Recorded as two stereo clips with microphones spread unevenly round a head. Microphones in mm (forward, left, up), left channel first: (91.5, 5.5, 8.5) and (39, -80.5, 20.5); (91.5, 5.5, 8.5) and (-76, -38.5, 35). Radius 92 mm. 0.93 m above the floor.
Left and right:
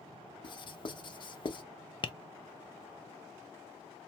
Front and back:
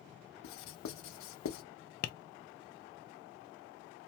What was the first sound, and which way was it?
Writing, 15° left.